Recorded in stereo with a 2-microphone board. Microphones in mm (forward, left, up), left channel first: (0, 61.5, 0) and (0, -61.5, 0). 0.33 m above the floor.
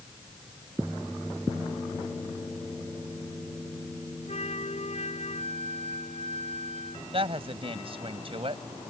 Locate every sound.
4.3 s a flute: 60° left (ahead or behind)
7.1 s a woman speaking: 50° right (ahead or behind)